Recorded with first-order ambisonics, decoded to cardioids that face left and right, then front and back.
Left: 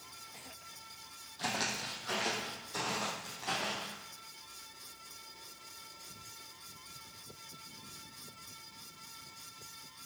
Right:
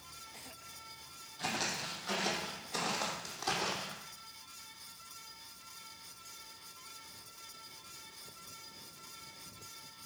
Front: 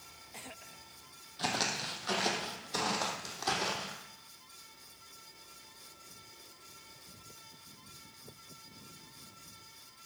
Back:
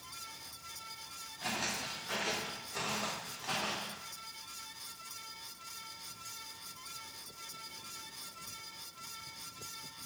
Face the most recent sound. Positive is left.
turn(degrees=-35)